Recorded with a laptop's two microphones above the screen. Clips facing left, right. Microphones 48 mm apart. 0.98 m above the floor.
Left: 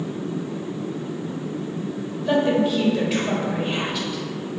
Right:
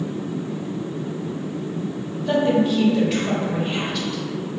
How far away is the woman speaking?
About 0.7 m.